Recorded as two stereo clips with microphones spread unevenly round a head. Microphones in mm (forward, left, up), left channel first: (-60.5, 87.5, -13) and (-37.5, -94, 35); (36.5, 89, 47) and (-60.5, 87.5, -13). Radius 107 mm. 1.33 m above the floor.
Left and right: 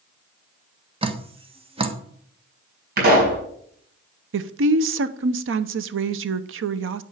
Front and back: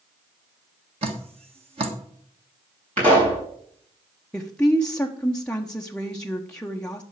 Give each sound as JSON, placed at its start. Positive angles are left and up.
{"t": 1.0, "sound": "dripping", "azimuth_deg": -145, "distance_m": 1.4}
{"t": 3.0, "sound": "a pop", "azimuth_deg": -115, "distance_m": 6.0}
{"t": 4.3, "sound": "a woman speaking", "azimuth_deg": -100, "distance_m": 0.9}